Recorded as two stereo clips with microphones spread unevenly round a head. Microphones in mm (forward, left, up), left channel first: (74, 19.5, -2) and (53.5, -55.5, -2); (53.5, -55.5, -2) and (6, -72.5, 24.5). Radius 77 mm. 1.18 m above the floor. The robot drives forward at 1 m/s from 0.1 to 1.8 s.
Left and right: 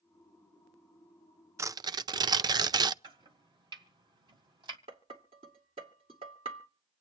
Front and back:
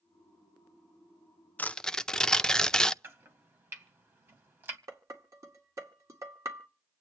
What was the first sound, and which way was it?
Tearing paper, 50° right.